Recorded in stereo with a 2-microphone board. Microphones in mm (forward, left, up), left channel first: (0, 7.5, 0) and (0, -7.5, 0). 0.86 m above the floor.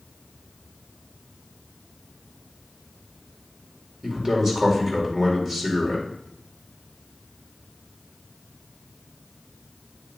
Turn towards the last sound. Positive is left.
turn(degrees=-25)  # may be behind; listen again after turning